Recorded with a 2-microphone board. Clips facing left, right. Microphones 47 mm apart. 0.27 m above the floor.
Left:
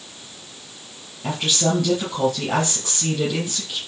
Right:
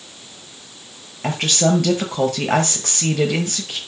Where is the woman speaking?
60° right (ahead or behind), 5.5 m.